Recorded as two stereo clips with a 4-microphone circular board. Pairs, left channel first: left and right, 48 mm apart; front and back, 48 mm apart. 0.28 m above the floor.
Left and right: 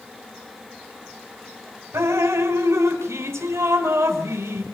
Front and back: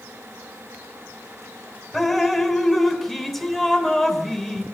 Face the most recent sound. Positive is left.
turn(degrees=-85)